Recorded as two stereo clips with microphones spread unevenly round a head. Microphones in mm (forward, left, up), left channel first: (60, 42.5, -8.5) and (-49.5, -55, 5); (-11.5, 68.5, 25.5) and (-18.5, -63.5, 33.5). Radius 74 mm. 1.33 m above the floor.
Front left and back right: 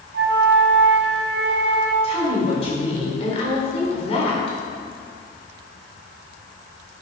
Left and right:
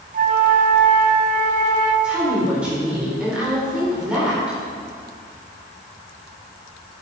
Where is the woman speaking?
10° right, 4 m.